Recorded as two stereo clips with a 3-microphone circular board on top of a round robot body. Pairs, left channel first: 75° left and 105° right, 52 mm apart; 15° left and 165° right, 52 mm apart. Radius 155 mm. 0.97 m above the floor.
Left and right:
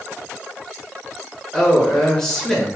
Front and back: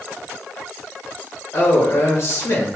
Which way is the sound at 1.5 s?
5° right.